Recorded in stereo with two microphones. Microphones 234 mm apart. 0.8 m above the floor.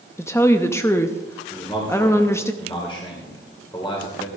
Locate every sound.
0.2 s a woman speaking: 10° left (ahead or behind), 0.7 m
1.5 s a man speaking: 20° left (ahead or behind), 2.5 m